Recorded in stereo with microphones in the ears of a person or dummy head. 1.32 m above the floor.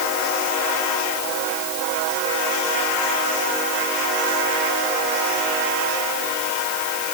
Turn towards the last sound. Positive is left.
No sound to turn to.